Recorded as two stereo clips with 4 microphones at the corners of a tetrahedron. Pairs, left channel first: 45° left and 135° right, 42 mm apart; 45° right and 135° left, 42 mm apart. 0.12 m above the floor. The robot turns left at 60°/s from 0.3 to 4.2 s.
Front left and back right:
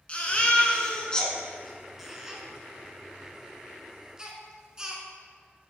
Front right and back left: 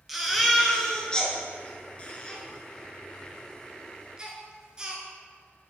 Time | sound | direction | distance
0.1 | a baby crying | 50° left | 0.9 m